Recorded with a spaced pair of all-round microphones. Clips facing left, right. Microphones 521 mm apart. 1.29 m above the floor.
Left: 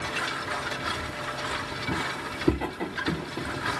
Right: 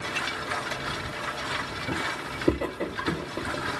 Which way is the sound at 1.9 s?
10° left (ahead or behind).